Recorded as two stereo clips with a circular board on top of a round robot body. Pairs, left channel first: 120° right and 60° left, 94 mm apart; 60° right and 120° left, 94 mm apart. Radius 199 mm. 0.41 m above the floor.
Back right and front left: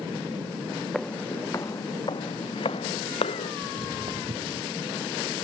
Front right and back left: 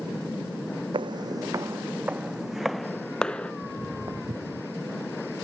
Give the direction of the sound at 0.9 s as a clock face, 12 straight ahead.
7 o'clock.